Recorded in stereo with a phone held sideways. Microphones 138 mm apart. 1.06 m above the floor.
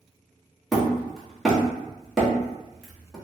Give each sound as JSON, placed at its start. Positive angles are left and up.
{"t": 0.7, "sound": "hammering", "side_deg": 0, "distance_m": 1.1}